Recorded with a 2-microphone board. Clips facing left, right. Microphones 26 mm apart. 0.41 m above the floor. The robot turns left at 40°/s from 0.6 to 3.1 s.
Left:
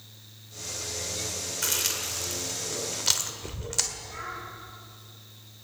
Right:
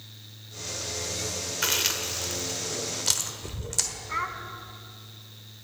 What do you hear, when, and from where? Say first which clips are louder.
1.6 s chewing: right 3 dB; 25° right (ahead or behind), 1.0 m; by 3.9 s 10° left (ahead or behind), 1.0 m
4.1 s a child speaking: right 7 dB; 55° right (ahead or behind), 1.9 m